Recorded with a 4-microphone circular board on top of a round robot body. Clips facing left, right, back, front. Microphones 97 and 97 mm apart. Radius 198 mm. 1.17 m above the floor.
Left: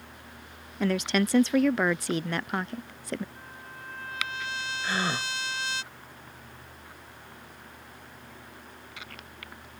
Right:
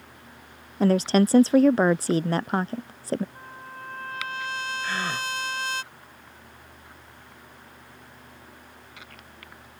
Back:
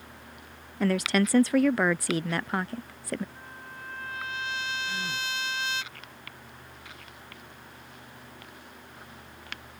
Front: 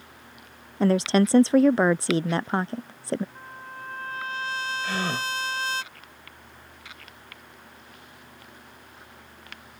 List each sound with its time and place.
0.8 s a woman speaking: 50° right
3.4 s a trumpet: 50° right
4.8 s a gasp: 15° left